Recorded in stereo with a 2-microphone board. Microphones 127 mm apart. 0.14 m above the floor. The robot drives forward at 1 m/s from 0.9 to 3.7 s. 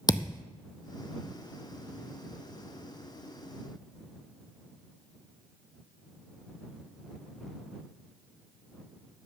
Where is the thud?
35° left (ahead or behind), 0.8 m.